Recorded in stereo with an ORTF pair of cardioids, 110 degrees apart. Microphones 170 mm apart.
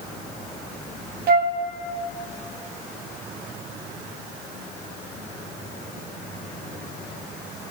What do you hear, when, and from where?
1.3 s a flute: 70° right, 0.9 m